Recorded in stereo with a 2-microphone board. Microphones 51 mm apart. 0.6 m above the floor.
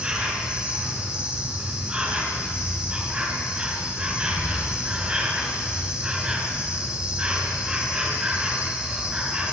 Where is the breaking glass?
I don't hear breaking glass.